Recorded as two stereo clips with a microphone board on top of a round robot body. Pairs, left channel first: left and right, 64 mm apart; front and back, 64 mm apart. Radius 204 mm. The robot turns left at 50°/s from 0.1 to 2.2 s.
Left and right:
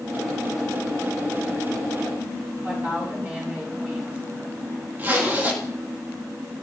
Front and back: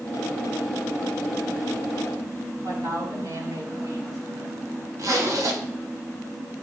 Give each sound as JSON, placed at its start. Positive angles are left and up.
{"t": 2.6, "sound": "a woman speaking", "azimuth_deg": -155, "distance_m": 7.0}
{"t": 5.0, "sound": "a zipper", "azimuth_deg": -150, "distance_m": 2.5}